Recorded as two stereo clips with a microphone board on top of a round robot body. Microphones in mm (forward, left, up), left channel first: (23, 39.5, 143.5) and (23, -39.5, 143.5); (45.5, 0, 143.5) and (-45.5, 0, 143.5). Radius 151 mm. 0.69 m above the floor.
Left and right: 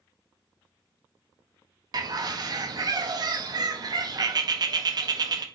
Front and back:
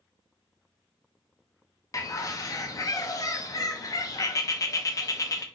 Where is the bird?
55° right, 0.5 m.